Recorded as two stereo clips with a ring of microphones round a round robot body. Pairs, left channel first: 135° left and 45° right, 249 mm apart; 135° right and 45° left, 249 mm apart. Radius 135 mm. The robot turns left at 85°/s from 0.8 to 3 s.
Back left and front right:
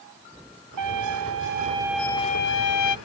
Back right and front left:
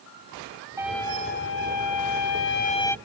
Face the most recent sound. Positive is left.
turn(degrees=140)